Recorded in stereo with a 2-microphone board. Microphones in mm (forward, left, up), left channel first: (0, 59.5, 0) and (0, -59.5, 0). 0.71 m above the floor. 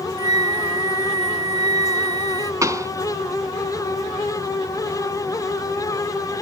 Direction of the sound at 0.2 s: 70° left (ahead or behind).